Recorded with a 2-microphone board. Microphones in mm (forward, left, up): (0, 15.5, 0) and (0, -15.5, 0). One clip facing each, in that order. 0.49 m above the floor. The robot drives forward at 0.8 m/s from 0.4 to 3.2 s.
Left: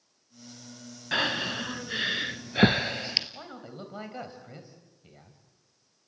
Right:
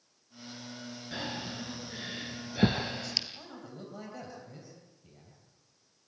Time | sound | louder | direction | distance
1.1 | breathing | left 11 dB | 60° left (ahead or behind) | 1.0 m
3.3 | a man speaking | left 3 dB | 40° left (ahead or behind) | 3 m